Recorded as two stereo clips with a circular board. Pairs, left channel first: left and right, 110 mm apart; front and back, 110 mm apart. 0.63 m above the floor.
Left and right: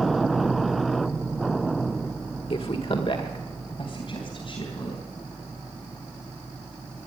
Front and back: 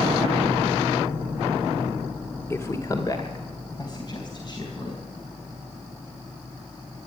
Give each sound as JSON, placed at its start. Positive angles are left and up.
{"t": 2.5, "sound": "a woman speaking", "azimuth_deg": 65, "distance_m": 1.3}